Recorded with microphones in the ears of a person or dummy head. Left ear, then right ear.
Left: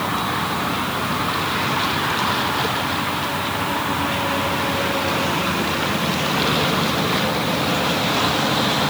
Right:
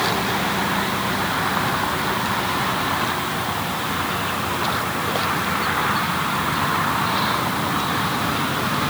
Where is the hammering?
I don't hear hammering.